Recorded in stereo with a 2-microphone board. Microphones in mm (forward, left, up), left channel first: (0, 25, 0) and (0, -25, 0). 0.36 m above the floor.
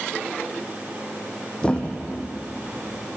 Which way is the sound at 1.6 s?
20° left (ahead or behind).